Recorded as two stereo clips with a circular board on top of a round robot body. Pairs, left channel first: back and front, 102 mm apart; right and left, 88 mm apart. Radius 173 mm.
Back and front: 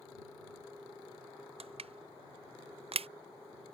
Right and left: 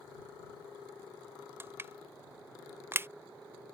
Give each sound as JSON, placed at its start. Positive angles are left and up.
{"t": 1.6, "sound": "crushing", "azimuth_deg": 25}